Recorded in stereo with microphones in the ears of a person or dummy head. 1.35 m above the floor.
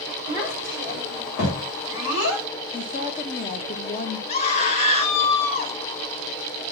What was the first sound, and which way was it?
A child speaking, 50° left (ahead or behind).